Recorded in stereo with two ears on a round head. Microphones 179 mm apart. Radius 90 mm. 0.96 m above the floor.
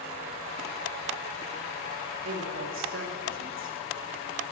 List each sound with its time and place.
2.2 s a woman speaking: 70° right (ahead or behind), 2 m